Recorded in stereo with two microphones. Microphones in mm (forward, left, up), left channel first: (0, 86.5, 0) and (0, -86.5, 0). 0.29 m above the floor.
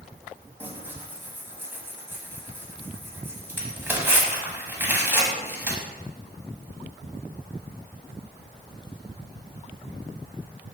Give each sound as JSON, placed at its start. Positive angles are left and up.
{"t": 0.6, "sound": "tearing paper", "side_deg": -10, "distance_m": 0.9}